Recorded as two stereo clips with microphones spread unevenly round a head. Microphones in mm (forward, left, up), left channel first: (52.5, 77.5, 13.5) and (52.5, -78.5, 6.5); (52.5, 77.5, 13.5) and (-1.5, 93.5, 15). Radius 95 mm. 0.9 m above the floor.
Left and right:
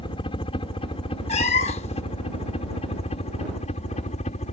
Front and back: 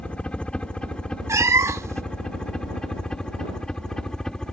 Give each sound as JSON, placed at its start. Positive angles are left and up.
{"t": 0.0, "sound": "a helicopter", "azimuth_deg": 45}
{"t": 1.3, "sound": "a cat meowing", "azimuth_deg": 140}